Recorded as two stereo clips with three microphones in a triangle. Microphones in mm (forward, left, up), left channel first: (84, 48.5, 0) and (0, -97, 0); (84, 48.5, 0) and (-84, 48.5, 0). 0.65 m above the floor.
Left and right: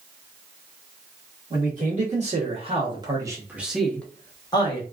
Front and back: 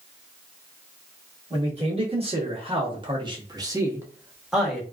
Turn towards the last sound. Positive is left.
turn(degrees=90)